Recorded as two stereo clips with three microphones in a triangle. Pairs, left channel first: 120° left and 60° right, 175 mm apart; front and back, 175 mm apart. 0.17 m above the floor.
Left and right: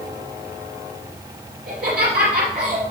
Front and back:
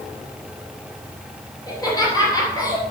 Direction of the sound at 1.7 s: 65° right.